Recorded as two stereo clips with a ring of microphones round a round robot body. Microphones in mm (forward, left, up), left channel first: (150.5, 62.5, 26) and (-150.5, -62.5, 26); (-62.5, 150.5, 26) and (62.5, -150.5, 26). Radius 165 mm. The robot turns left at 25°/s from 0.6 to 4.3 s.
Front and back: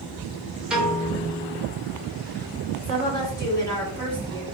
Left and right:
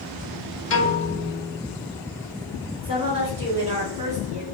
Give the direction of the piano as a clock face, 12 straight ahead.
8 o'clock.